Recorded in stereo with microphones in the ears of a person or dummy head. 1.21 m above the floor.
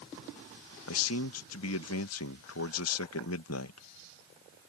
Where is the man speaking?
75° left (ahead or behind).